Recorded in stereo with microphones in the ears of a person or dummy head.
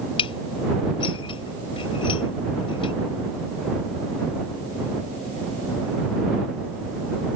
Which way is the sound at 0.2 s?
30° left (ahead or behind).